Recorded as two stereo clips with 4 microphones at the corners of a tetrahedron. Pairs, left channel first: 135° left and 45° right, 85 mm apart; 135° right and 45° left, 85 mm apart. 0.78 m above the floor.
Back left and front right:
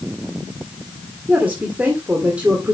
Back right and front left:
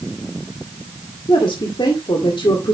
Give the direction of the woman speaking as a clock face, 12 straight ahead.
4 o'clock.